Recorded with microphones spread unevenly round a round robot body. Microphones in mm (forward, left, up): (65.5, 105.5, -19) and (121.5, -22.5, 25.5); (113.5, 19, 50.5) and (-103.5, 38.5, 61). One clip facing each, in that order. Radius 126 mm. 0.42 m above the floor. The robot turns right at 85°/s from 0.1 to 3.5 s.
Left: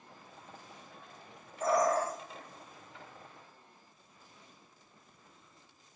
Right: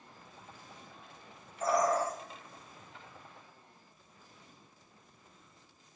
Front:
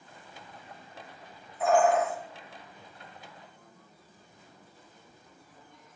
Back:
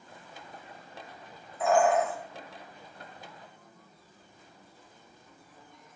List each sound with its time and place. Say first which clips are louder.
1.6 s a bird: left 1 dB, even; 165° left, 1.1 m; by 2.1 s 150° right, 1.1 m